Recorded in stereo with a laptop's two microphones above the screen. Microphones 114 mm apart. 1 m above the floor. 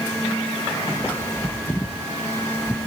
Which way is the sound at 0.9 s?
20° left (ahead or behind).